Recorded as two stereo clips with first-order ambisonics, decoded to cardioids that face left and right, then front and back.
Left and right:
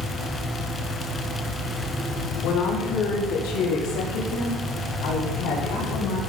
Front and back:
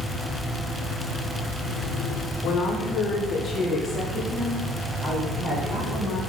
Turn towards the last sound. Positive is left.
turn(degrees=110)